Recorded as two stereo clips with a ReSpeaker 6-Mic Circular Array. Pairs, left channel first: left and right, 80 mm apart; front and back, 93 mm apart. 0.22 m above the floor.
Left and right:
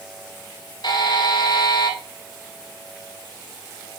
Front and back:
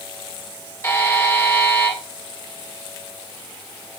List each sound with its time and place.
0.8 s a buzzer: 65° left, 1.5 m